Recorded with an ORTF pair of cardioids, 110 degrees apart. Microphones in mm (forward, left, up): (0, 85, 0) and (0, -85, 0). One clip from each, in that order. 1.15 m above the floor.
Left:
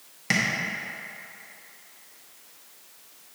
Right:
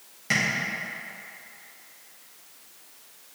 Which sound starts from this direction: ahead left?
Tapping, at 0.3 s.